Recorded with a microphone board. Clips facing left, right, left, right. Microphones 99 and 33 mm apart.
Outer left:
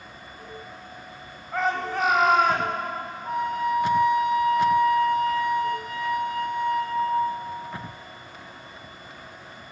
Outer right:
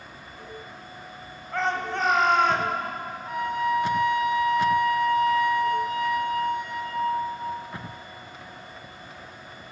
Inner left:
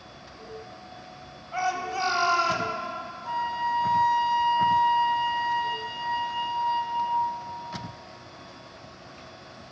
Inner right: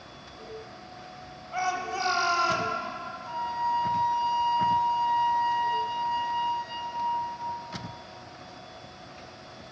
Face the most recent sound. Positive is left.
turn(degrees=45)  # may be behind; listen again after turning